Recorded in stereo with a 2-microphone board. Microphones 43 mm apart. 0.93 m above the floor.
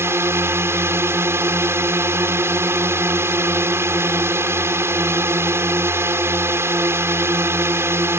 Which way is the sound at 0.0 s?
65° right (ahead or behind).